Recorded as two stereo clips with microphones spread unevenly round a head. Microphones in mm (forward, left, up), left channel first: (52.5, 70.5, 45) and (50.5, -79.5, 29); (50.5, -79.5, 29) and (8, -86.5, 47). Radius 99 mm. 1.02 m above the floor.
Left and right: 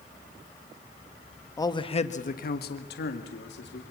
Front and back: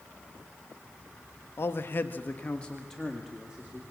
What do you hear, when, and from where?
1.6 s a man speaking: 20° left, 1.6 m; by 3.8 s 105° left, 3 m